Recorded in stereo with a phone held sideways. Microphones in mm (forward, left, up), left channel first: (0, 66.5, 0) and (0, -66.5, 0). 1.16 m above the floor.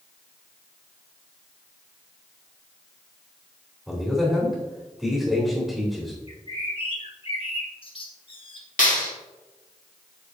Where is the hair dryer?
I don't hear a hair dryer.